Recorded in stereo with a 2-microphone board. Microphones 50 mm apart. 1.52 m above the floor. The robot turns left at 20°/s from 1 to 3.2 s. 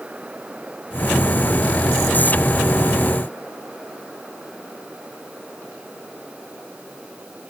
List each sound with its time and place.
Only background noise.